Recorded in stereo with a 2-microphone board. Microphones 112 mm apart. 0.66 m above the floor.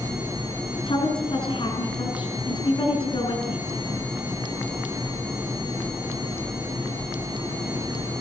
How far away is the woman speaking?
About 6.5 m.